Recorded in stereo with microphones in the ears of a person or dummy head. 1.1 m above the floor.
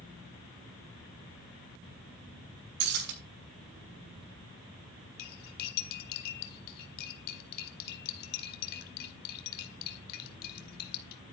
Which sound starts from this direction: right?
Breaking glass, at 2.8 s.